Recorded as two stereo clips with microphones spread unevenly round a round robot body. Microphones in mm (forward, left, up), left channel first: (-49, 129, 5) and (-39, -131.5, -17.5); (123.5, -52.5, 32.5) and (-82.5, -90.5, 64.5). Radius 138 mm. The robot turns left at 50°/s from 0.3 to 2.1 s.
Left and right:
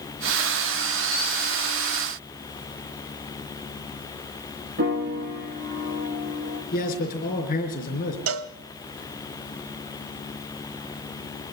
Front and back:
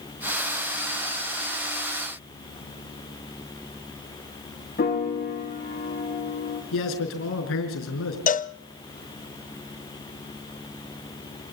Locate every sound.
4.8 s a piano: 35° right, 7.5 m
6.7 s a man speaking: 30° left, 4.5 m
8.3 s a cowbell: 45° right, 0.7 m